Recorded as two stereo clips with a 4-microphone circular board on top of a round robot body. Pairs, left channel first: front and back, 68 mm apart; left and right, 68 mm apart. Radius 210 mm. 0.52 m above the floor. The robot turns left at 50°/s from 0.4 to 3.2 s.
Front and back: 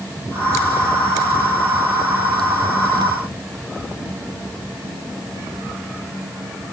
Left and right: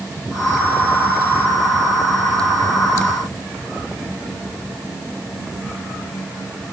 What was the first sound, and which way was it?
Only background noise.